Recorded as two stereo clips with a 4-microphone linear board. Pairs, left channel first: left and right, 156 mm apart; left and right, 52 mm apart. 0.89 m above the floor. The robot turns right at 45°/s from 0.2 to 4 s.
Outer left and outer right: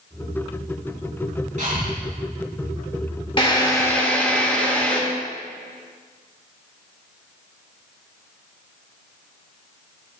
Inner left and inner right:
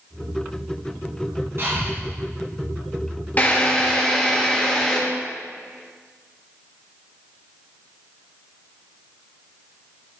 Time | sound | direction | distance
1.6 | breathing | 55° right (ahead or behind) | 2.5 m
3.4 | a drill | 35° left (ahead or behind) | 1.7 m